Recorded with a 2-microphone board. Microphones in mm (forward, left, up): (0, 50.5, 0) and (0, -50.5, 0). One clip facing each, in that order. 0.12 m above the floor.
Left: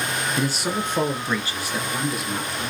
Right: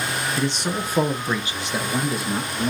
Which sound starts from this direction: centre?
A man speaking, at 0.4 s.